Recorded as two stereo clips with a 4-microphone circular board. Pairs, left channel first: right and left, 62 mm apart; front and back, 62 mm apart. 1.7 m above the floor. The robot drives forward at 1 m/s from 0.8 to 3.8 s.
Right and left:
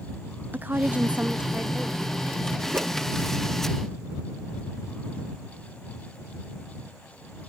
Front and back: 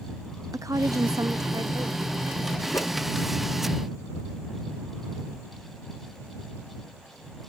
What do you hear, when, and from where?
0.5 s a woman speaking: 150° left; by 2.6 s 170° left
2.7 s a whoosh: 35° left; by 2.9 s 40° left